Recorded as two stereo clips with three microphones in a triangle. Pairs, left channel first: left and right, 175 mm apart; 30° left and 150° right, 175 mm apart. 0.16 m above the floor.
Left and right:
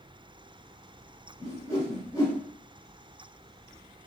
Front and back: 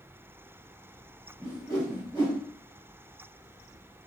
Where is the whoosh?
45° left, 1.6 m.